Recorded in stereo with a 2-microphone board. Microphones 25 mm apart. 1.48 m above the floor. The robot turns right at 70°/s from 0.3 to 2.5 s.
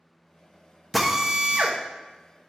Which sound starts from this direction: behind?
A drill, at 0.9 s.